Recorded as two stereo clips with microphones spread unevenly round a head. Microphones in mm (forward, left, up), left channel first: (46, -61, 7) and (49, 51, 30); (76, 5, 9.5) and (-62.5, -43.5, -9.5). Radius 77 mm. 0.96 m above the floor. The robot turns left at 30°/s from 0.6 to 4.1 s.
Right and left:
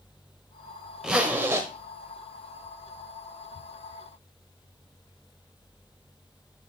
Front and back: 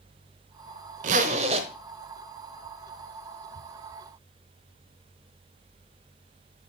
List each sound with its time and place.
1.0 s a zipper: 165° left, 0.9 m; by 1.7 s 145° left, 0.9 m